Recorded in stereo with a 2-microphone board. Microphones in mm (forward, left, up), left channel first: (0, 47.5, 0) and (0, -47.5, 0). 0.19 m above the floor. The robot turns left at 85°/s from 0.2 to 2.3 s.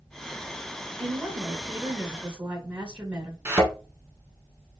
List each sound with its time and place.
1.0 s a woman speaking: 5° right (ahead or behind), 1.0 m; by 3.4 s 15° right (ahead or behind), 1.0 m
3.5 s a thud: 20° right (ahead or behind), 1.3 m